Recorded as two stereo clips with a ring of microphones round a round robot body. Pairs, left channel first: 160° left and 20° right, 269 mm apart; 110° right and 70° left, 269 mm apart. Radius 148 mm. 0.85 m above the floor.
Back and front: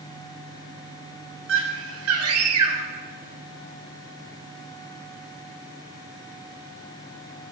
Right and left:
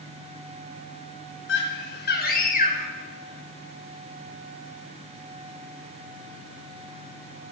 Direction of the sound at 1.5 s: 65° right.